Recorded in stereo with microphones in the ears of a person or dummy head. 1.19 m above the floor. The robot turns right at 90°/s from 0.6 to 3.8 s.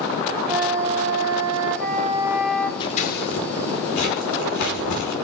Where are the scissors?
25° left (ahead or behind), 5 m; by 5.1 s 60° left (ahead or behind), 5 m.